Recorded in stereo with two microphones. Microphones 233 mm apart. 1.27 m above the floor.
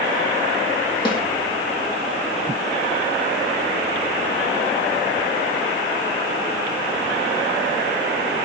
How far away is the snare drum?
About 2.5 m.